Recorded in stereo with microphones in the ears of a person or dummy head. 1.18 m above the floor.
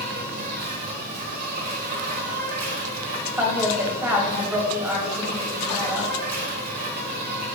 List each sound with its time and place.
0.0 s an insect: 50° right (ahead or behind), 1.5 m
3.4 s a woman speaking: 5° right (ahead or behind), 1.5 m